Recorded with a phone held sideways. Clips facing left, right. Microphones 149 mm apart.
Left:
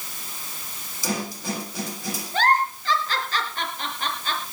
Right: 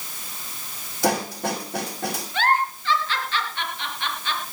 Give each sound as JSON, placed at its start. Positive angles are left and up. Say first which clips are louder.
{"t": 1.0, "sound": "a snare drum", "louder": "right 5 dB", "side_deg": -65, "distance_m": 6.5}
{"t": 2.3, "sound": "a giggle", "louder": "left 2 dB", "side_deg": 40, "distance_m": 4.0}